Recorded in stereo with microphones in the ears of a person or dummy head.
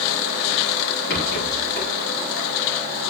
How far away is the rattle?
About 5 m.